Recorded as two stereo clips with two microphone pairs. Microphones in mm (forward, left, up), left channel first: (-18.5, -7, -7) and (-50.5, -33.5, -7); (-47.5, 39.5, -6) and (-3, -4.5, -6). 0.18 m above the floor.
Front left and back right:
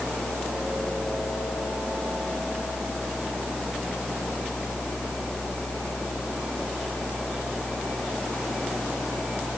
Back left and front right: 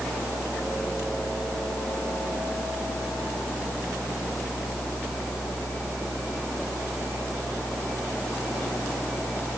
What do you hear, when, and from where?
Only background noise.